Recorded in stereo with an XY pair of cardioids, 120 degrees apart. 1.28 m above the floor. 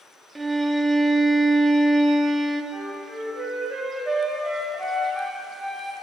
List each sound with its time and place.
0.3 s a violin: 15° right, 0.6 m
2.7 s a flute: 20° right, 1.5 m